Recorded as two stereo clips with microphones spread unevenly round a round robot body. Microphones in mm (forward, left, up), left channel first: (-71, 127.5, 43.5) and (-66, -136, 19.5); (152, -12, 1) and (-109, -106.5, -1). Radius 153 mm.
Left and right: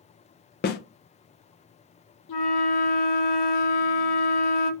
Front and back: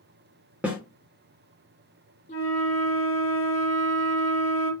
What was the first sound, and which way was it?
A snare drum, 120° left.